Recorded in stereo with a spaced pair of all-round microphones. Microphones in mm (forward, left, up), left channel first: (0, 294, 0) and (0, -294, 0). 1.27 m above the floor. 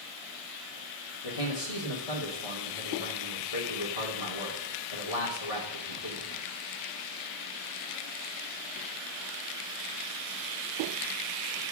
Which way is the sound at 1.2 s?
70° left (ahead or behind).